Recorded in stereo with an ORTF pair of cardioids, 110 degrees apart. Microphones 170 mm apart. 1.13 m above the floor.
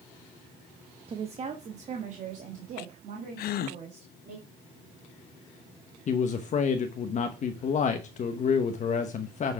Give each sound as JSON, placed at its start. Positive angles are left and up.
{"t": 1.1, "sound": "a woman speaking", "azimuth_deg": -35, "distance_m": 1.1}
{"t": 3.4, "sound": "a gasp", "azimuth_deg": 65, "distance_m": 0.7}
{"t": 6.1, "sound": "a man speaking", "azimuth_deg": 45, "distance_m": 0.9}